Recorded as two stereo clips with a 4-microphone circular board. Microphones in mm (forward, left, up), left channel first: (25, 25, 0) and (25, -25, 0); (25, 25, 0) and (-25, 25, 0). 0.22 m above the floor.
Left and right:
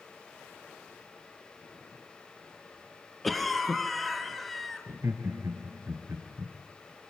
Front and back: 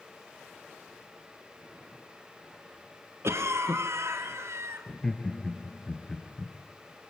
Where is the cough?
Straight behind, 2.5 m.